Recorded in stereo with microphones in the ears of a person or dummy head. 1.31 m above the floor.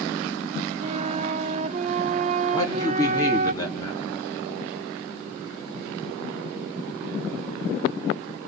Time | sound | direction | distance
0.8 | a flute | 35° right (ahead or behind) | 0.7 m
2.5 | a man speaking | 15° left (ahead or behind) | 3 m